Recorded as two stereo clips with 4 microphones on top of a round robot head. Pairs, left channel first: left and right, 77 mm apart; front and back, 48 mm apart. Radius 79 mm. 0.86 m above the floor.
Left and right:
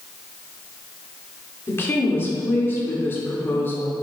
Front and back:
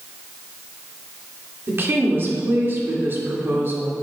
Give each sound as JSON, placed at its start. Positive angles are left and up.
{"t": 1.7, "sound": "a woman speaking", "azimuth_deg": 150, "distance_m": 2.5}